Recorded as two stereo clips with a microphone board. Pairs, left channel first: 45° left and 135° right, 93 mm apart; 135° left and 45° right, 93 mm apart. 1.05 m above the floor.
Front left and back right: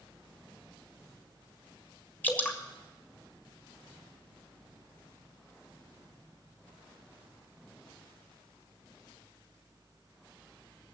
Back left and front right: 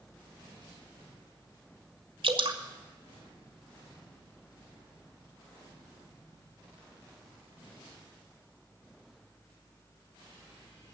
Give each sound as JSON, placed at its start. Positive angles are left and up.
{"t": 2.2, "sound": "dripping", "azimuth_deg": -25, "distance_m": 1.8}